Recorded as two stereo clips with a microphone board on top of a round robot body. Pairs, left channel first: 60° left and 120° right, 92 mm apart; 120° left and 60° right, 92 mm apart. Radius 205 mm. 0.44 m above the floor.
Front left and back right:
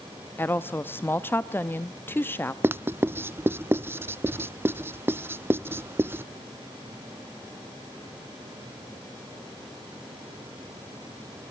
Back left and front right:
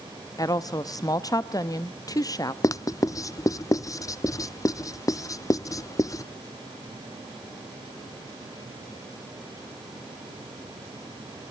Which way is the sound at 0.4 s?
115° left.